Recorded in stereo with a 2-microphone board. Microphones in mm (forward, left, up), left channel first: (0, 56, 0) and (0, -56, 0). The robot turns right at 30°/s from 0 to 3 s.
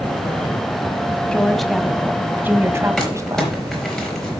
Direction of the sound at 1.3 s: 170° left.